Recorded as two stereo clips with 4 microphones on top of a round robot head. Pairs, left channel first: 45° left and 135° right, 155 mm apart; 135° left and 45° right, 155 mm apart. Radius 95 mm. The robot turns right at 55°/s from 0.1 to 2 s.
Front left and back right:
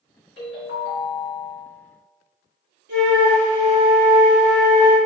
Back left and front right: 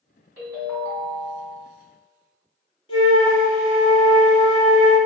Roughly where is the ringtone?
Ahead left.